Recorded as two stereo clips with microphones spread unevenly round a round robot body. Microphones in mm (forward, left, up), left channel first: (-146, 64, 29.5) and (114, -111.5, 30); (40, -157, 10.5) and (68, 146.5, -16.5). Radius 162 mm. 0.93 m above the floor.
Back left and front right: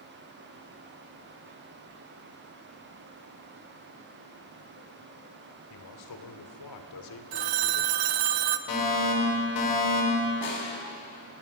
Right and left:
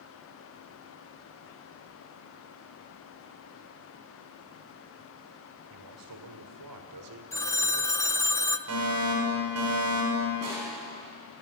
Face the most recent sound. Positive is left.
turn(degrees=130)